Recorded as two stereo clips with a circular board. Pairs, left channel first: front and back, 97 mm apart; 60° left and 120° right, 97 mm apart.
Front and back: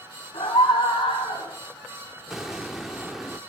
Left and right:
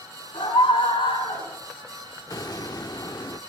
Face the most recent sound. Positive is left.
turn(degrees=95)